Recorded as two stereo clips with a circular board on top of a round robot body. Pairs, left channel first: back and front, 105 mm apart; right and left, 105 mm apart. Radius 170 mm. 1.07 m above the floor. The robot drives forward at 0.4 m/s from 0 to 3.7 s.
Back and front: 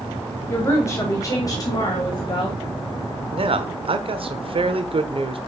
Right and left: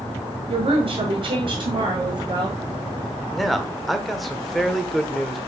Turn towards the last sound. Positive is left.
turn(degrees=0)